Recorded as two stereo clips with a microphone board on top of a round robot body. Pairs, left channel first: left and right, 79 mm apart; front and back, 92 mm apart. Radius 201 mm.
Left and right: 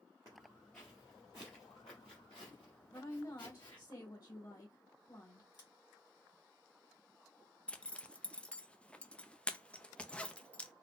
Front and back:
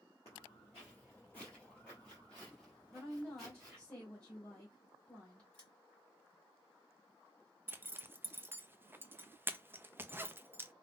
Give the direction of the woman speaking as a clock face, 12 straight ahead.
9 o'clock.